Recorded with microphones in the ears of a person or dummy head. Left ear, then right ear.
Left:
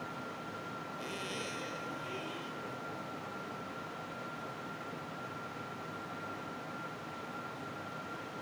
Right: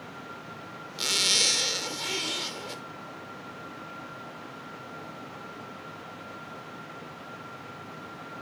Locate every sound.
1.0 s a zipper: 70° right (ahead or behind)